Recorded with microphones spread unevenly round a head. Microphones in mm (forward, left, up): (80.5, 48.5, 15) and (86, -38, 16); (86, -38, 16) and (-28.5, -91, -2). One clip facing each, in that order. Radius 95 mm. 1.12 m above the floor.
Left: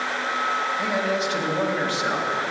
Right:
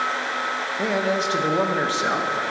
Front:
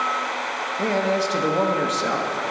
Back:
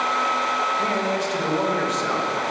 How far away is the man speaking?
About 1.4 m.